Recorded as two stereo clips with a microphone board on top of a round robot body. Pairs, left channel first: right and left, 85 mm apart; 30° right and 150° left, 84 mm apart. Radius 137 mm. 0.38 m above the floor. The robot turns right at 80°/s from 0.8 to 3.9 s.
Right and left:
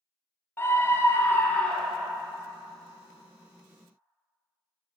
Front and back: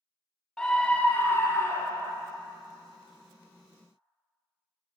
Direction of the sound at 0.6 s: 100° right.